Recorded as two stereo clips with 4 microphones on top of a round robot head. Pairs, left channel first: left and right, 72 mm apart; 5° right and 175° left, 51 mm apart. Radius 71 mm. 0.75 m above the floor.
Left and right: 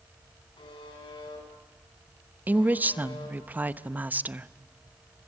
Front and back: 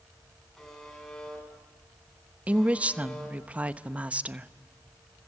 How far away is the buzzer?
About 9.5 m.